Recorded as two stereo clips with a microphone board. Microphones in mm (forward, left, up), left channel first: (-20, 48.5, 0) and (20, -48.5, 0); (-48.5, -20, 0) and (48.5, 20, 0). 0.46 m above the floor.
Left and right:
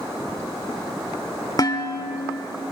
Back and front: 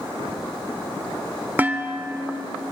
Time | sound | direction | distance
1.6 | dishes clattering | 85° left | 0.8 m